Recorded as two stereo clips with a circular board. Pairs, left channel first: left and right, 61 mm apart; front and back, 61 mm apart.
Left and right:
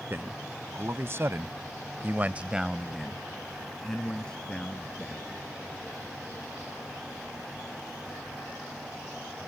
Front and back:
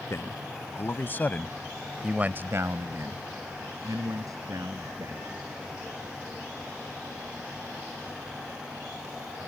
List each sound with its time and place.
0.1 s a man speaking: 40° right; by 5.5 s 165° left